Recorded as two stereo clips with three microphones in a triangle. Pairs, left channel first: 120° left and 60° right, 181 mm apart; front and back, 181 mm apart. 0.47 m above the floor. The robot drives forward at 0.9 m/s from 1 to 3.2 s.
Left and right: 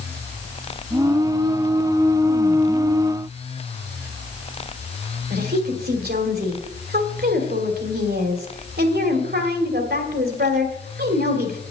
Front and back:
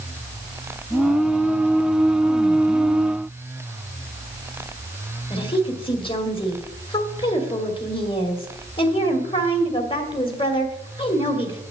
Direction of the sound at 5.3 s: 60° right.